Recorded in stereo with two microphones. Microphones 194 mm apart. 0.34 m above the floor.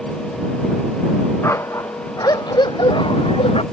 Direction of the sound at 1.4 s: 15° left (ahead or behind).